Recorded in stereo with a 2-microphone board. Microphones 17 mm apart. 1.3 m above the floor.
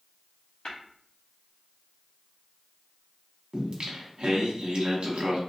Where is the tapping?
60° left (ahead or behind), 1.2 m.